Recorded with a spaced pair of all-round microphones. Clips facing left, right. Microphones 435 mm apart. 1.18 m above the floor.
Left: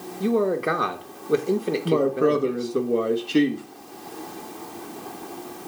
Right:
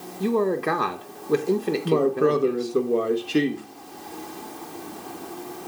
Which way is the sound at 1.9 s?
Centre (ahead or behind).